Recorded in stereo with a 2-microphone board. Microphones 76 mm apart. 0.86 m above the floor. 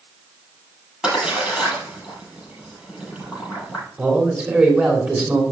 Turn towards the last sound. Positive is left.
turn(degrees=-25)  # may be behind; listen again after turning